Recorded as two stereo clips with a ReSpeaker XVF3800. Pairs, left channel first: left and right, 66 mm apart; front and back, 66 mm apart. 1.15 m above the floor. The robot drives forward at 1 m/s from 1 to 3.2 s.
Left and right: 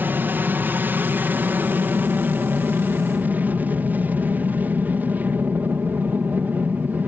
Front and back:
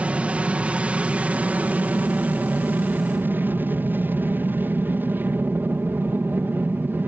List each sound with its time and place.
0.0 s an aircraft: 120° right; by 7.1 s 135° right